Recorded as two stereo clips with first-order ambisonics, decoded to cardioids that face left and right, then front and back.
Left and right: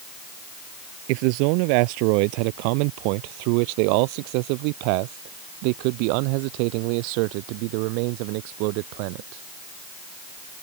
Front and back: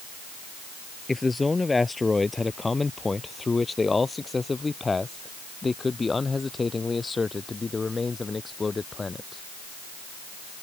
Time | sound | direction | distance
1.1 | a man speaking | 80° right | ?